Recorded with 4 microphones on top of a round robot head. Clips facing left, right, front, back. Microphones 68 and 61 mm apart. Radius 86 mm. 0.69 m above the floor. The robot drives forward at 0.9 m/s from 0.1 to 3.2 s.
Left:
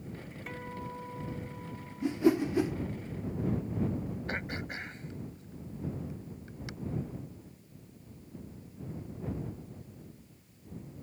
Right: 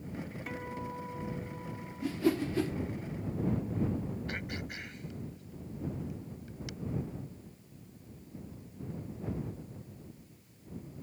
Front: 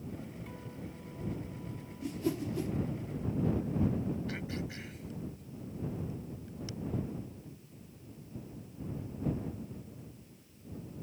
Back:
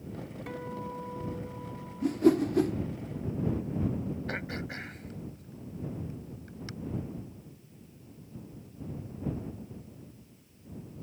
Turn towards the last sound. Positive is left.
turn(degrees=145)